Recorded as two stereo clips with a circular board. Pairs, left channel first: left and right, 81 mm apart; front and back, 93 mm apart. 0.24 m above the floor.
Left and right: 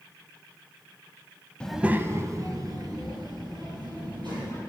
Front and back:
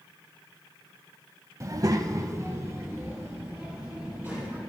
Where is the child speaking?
155° left, 0.6 m; by 4.6 s 115° right, 4.5 m.